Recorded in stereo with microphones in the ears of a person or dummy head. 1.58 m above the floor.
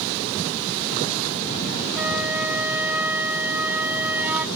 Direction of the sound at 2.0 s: 10° right (ahead or behind).